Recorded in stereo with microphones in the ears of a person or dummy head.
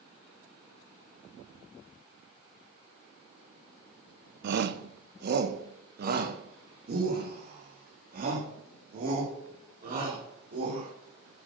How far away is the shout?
About 0.9 m.